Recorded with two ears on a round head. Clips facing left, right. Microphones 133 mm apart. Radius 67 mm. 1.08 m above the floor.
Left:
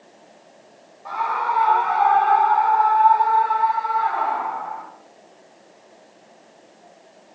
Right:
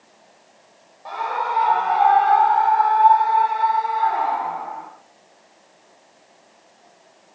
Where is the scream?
30° right (ahead or behind), 5.5 m; by 4.9 s 40° right (ahead or behind), 10.5 m.